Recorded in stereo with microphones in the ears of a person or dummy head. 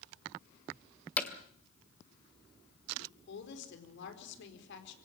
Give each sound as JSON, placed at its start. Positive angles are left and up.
{"t": 1.2, "sound": "hammering", "side_deg": 5, "distance_m": 2.0}
{"t": 3.0, "sound": "a woman speaking", "side_deg": 70, "distance_m": 4.5}